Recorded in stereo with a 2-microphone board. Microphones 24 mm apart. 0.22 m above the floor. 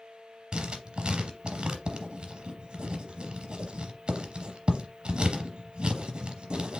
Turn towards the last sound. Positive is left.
turn(degrees=-45)  # may be behind; listen again after turning